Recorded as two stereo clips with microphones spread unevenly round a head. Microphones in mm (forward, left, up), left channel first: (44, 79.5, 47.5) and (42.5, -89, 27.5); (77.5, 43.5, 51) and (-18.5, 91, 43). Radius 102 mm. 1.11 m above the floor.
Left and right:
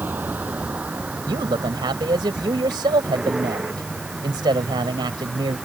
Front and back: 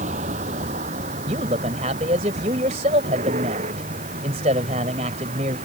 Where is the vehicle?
175° right; by 5.7 s straight behind.